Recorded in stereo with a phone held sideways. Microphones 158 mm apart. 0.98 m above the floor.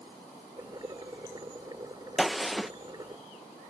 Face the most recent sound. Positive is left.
turn(degrees=0)  # may be behind; listen again after turning